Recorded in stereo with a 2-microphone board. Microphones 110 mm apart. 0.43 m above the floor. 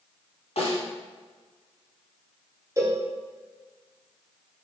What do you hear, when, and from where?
0.6 s a snare drum: 75° left (ahead or behind), 3 m
2.8 s a cowbell: 30° right (ahead or behind), 1.2 m